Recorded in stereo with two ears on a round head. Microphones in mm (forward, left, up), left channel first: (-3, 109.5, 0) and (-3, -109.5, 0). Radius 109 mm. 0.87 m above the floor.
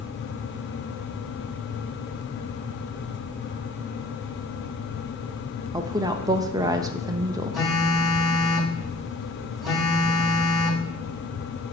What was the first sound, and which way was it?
A woman speaking, 15° right (ahead or behind).